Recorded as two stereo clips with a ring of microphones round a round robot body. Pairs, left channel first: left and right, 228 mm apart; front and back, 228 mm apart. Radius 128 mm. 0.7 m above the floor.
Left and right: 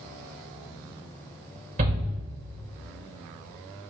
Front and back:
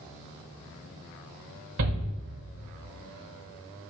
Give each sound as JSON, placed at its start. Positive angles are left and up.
{"t": 1.8, "sound": "a shout", "azimuth_deg": -150, "distance_m": 3.5}